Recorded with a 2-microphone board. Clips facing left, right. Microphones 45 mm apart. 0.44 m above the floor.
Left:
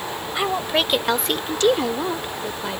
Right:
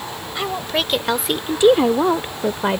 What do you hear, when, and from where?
0.3 s a woman speaking: 10° left (ahead or behind); by 2.8 s 40° right (ahead or behind)